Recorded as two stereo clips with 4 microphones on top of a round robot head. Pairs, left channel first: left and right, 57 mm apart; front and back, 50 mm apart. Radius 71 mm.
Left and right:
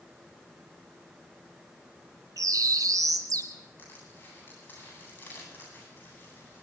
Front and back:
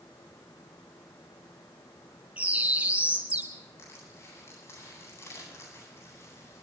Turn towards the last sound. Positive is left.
turn(degrees=35)